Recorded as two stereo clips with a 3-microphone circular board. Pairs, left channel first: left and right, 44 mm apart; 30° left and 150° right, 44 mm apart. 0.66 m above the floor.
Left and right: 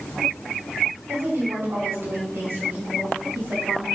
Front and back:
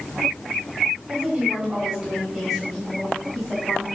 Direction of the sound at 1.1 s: 85° right.